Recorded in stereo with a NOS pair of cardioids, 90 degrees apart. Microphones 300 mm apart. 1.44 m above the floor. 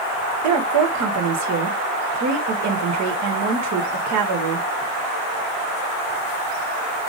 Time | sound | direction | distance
0.4 | a woman speaking | 65° right | 1.4 m